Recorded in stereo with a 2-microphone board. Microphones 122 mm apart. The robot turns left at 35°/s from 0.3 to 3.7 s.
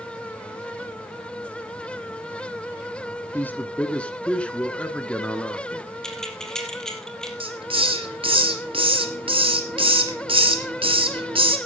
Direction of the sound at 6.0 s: 5° left (ahead or behind).